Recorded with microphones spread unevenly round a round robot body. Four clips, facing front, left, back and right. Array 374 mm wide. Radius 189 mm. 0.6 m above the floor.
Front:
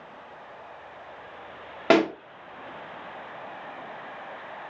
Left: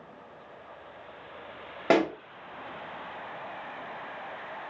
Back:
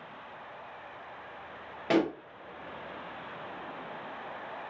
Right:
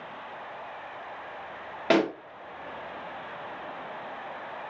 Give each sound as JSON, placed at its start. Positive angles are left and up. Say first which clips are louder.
{"t": 1.9, "sound": "a pop", "louder": "even, front 7 dB", "azimuth_deg": 10, "distance_m": 1.6}